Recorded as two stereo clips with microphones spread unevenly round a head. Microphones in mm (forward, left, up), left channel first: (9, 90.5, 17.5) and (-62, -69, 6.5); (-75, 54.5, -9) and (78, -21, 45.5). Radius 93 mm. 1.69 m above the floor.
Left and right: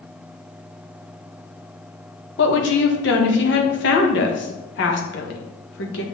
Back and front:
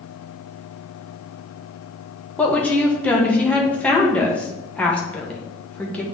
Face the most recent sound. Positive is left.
turn(degrees=60)